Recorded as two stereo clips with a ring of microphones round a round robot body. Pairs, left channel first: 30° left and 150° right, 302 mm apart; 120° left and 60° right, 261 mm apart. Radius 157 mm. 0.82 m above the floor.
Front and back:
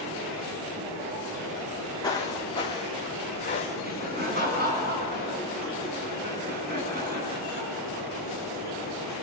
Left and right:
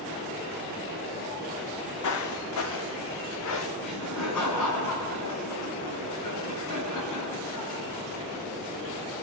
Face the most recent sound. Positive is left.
turn(degrees=150)